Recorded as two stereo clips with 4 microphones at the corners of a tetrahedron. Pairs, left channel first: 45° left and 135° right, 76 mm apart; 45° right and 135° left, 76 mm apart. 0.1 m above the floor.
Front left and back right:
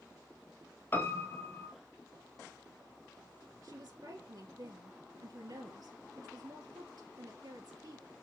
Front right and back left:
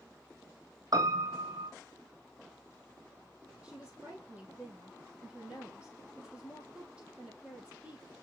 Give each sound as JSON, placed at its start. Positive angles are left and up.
{"t": 0.9, "sound": "a piano", "azimuth_deg": 105, "distance_m": 0.9}
{"t": 3.6, "sound": "a woman speaking", "azimuth_deg": -150, "distance_m": 2.5}